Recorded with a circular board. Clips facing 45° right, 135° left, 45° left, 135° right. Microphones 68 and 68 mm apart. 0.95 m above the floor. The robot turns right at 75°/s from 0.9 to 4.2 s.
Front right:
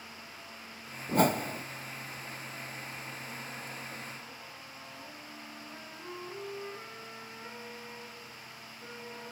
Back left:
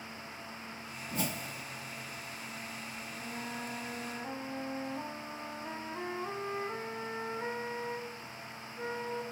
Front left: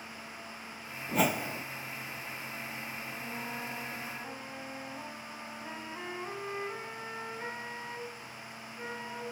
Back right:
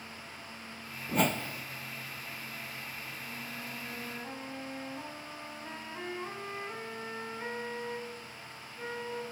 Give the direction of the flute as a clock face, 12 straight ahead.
10 o'clock.